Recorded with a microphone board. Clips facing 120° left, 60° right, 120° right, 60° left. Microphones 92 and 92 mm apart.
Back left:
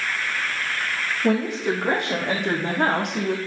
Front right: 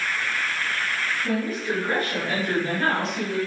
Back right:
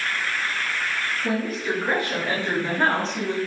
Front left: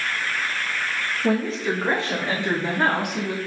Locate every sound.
1.2 s a woman speaking: 120° left, 6 m; by 3.4 s 140° left, 5 m